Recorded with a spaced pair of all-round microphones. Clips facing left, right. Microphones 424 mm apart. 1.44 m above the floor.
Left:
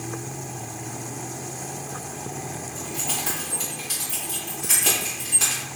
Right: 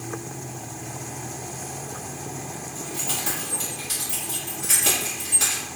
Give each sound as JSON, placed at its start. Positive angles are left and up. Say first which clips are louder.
{"t": 2.8, "sound": "keys jangling", "louder": "even", "side_deg": -35, "distance_m": 1.7}